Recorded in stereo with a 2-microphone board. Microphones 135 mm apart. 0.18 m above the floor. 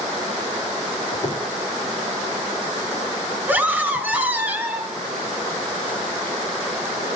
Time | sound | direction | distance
1.1 | a squeak | 25° left (ahead or behind) | 1.8 m
3.5 | a scream | 15° right (ahead or behind) | 1.1 m